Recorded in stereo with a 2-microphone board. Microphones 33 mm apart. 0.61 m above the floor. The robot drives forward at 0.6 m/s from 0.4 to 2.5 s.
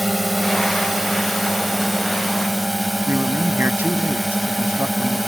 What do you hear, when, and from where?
0.0 s a drone: 5° right (ahead or behind)
3.1 s a man speaking: 75° right (ahead or behind)